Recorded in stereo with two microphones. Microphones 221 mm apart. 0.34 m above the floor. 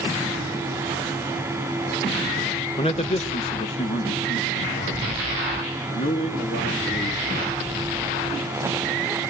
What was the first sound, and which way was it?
A man speaking, 25° left (ahead or behind).